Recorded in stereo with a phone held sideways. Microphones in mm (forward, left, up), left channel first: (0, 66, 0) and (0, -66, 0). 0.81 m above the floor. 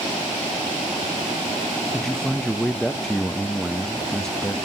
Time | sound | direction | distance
1.9 | a man speaking | 5° left (ahead or behind) | 0.6 m